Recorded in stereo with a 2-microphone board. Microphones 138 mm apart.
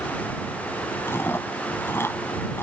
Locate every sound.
1.1 s chewing: 15° left (ahead or behind)